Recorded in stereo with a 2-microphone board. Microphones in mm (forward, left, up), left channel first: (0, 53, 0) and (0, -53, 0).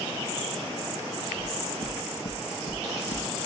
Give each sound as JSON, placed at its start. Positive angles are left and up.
{"t": 1.4, "sound": "knocking", "side_deg": 80, "distance_m": 3.5}